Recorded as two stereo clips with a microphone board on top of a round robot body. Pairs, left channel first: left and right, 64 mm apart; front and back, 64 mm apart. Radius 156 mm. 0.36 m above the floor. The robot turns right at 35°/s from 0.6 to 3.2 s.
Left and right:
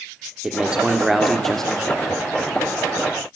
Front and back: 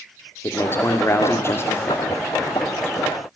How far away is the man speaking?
About 1.7 m.